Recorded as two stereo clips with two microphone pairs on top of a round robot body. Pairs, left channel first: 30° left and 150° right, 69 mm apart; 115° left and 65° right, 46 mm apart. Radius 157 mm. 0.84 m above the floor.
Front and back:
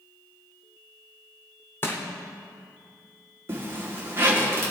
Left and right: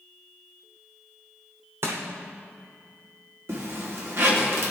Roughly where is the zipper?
Right.